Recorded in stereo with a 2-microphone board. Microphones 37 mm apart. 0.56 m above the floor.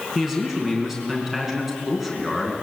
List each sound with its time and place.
0.1 s a man speaking: 10° right (ahead or behind), 5 m